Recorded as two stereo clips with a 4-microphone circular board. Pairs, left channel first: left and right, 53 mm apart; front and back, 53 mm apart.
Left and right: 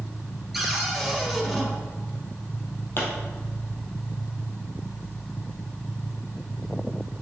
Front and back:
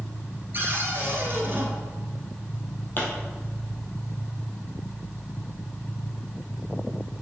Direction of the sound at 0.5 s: 175° right.